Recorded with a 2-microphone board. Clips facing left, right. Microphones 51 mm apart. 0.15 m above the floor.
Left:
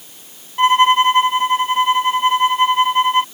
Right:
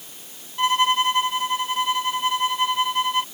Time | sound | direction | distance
0.6 | a violin | 35° left (ahead or behind) | ?